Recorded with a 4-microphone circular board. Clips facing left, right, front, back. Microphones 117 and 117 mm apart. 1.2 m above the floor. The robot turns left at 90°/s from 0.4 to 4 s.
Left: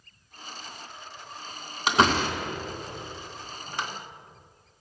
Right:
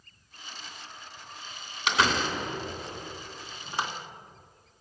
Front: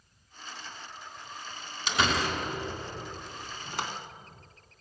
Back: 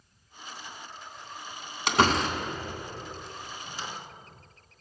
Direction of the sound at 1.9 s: 145° left.